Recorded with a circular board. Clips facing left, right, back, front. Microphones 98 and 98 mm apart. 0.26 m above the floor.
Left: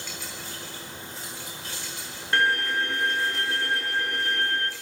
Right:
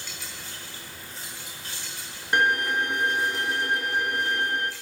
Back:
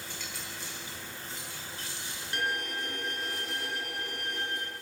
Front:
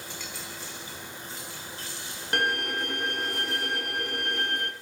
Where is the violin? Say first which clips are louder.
Right 1 dB, front 6 dB; 20° right, 1.9 m.